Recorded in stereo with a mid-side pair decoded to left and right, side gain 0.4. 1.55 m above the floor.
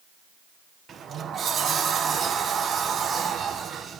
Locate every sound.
0.9 s a sliding door: 55° right, 1.5 m